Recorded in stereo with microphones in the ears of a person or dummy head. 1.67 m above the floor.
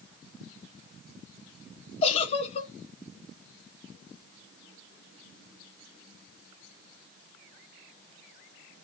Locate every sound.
2.0 s a giggle: 35° left (ahead or behind), 1.2 m